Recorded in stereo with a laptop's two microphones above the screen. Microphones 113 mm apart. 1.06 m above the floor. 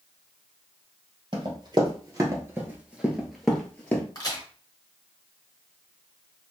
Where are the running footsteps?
45° right (ahead or behind), 1.4 m; by 4.0 s 15° left (ahead or behind), 1.3 m.